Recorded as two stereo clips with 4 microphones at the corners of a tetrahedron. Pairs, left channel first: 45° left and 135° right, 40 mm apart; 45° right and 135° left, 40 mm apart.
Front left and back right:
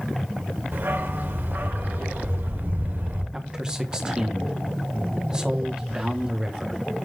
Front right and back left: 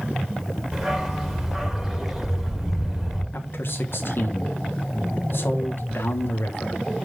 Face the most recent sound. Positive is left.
turn(degrees=-65)